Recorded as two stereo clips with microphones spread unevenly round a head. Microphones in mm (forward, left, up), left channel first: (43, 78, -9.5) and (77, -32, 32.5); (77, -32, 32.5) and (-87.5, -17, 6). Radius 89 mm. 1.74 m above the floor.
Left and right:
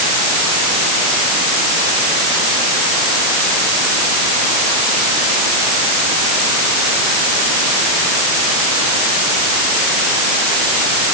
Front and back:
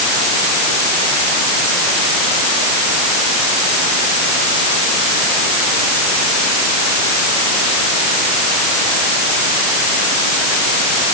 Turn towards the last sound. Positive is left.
No sound to turn to.